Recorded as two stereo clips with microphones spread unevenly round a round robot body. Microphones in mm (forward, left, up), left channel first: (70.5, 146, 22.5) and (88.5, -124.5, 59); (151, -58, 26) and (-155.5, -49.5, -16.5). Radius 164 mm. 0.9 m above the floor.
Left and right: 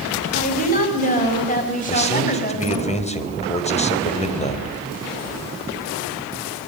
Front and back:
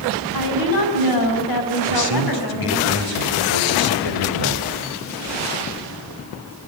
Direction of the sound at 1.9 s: 30° left.